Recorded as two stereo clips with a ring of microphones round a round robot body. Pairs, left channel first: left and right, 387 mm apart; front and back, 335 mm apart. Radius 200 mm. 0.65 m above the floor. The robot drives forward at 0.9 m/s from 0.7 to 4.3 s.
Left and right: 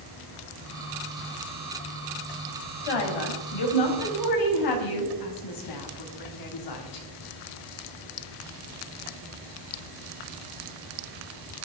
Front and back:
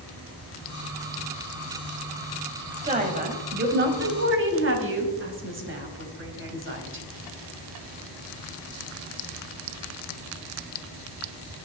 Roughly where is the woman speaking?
Left.